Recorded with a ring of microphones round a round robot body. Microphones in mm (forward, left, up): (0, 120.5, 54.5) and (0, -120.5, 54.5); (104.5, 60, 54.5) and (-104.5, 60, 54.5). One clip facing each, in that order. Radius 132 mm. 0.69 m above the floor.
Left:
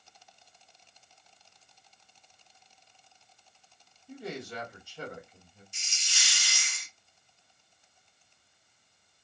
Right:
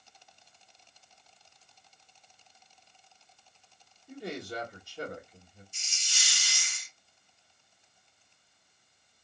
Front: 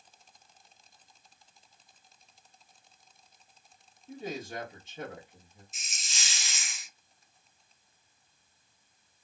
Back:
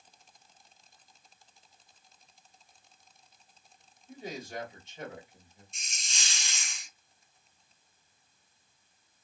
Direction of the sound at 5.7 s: 85° left.